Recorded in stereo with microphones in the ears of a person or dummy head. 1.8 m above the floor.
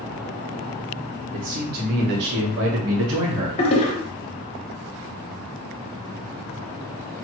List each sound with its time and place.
1.3 s a man speaking: 40° right (ahead or behind), 1.7 m; by 3.5 s 70° right (ahead or behind), 1.1 m
3.6 s a toilet flushing: 30° left (ahead or behind), 0.9 m